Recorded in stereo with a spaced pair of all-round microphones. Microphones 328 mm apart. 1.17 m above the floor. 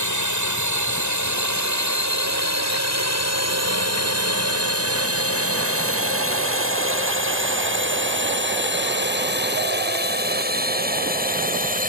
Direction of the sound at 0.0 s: 60° right (ahead or behind).